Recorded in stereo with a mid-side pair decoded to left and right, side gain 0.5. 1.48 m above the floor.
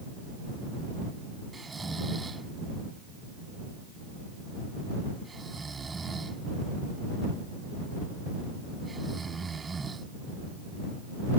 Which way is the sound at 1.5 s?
25° right.